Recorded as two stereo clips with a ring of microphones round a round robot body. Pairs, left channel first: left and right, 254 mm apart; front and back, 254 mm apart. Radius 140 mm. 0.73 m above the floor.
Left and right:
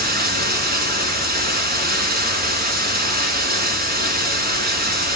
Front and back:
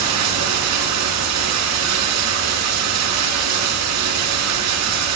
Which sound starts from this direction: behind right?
Running water, at 0.0 s.